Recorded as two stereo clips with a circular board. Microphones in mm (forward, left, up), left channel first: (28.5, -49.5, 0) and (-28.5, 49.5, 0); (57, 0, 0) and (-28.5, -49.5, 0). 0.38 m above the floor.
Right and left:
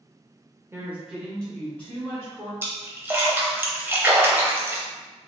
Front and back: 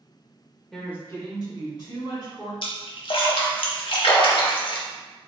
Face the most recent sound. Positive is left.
turn(degrees=50)